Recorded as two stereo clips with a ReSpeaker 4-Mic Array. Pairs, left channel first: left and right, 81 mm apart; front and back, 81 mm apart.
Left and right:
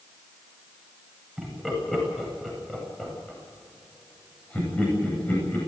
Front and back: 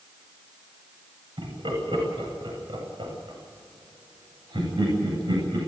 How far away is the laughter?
About 9.5 m.